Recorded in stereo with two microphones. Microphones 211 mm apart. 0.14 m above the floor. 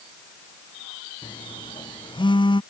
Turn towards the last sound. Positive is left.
turn(degrees=20)  # may be behind; listen again after turning